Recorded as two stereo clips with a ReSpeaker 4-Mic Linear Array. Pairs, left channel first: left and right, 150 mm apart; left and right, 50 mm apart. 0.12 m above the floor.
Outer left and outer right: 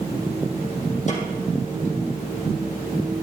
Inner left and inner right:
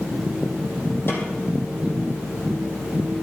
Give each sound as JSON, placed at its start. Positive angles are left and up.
{"t": 1.1, "sound": "a snare drum", "side_deg": 50, "distance_m": 3.0}